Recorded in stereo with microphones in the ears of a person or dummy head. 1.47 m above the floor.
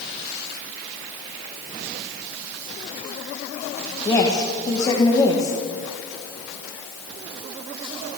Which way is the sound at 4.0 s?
25° left (ahead or behind).